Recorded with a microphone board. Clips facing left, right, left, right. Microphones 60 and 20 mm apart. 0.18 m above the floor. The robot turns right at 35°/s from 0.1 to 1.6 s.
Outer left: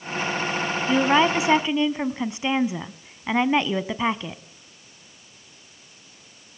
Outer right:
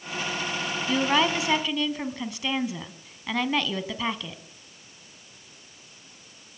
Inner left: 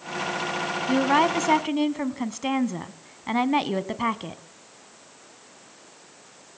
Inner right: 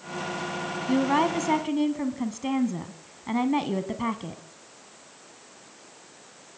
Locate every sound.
0.9 s a woman speaking: 15° left (ahead or behind), 1.1 m; by 4.4 s 25° left (ahead or behind), 1.1 m